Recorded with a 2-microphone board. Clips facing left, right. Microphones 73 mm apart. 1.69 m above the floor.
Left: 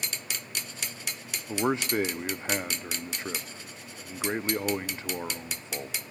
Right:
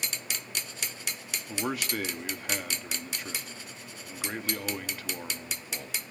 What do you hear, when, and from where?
1.5 s a man speaking: 25° left (ahead or behind), 0.8 m